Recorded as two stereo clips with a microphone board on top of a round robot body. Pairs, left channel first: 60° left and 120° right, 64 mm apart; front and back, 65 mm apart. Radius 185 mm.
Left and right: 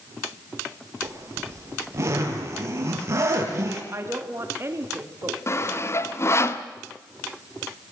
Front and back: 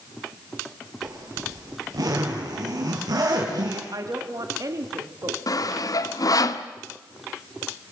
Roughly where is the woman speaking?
Behind.